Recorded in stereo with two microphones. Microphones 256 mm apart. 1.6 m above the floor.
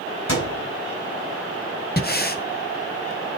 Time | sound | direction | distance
0.3 | a thud | 80° left | 6.5 m
2.0 | breathing | 40° left (ahead or behind) | 0.7 m